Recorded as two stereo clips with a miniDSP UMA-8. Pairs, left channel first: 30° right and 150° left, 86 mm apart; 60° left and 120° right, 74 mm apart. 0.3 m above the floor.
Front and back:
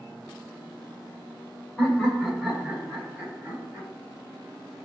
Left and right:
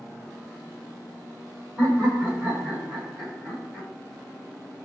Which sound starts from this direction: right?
Laughter, at 1.8 s.